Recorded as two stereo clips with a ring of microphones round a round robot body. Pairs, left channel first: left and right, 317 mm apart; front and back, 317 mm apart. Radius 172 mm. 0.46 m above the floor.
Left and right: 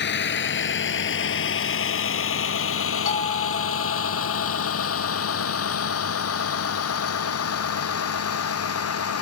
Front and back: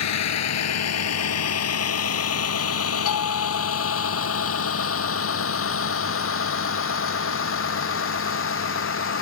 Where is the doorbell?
25° left.